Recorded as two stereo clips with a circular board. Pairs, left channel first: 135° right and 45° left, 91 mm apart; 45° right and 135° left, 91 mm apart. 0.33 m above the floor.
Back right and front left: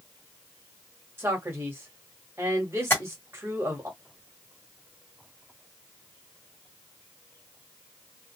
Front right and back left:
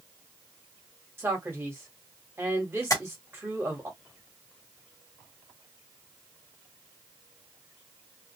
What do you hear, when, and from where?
1.2 s a man speaking: 90° left, 1.4 m
2.9 s tapping: 80° right, 1.8 m